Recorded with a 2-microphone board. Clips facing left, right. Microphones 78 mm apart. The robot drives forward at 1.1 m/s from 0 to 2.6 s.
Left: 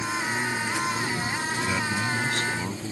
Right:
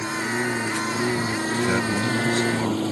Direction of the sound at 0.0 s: 35° right (ahead or behind).